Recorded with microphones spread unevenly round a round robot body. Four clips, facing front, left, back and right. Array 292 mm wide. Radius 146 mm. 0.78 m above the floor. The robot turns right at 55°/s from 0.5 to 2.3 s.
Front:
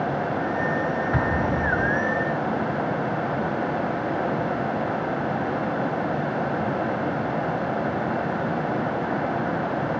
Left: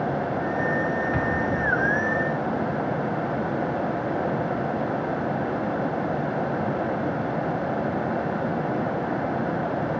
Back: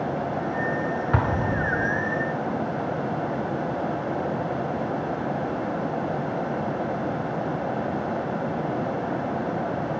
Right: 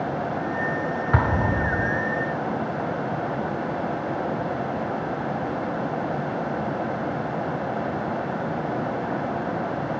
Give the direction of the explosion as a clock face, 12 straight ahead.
4 o'clock.